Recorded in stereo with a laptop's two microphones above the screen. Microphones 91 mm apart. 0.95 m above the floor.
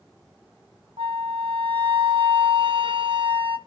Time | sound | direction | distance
1.0 | a flute | 70° right (ahead or behind) | 1.0 m